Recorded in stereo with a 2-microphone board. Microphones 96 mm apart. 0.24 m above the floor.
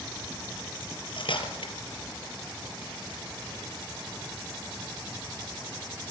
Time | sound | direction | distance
0.8 | cutlery clinking | 65° left (ahead or behind) | 3.5 m